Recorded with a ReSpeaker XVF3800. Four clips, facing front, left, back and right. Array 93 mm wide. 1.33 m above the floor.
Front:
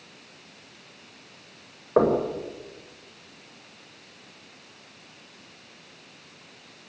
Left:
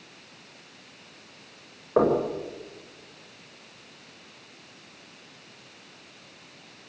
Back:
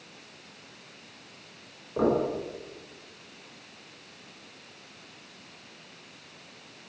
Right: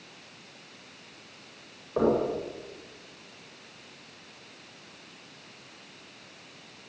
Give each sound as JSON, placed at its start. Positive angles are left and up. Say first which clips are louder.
{"t": 2.0, "sound": "knocking", "louder": "left 3 dB, front 4 dB", "azimuth_deg": 25, "distance_m": 6.0}